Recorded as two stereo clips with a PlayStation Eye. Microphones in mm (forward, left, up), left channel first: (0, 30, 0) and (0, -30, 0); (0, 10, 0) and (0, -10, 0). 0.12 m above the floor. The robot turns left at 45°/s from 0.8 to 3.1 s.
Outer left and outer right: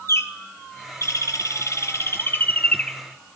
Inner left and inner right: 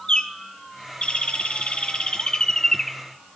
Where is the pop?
No pop in this recording.